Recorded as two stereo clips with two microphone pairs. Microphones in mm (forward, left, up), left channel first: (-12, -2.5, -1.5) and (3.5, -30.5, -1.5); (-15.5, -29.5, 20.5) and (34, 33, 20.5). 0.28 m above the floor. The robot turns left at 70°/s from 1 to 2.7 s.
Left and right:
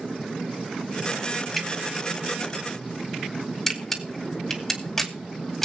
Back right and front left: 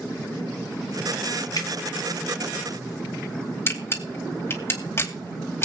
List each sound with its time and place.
1.6 s dripping: 160° right, 1.8 m; by 1.7 s 170° right, 1.8 m
3.7 s a camera shutter: 165° right, 2 m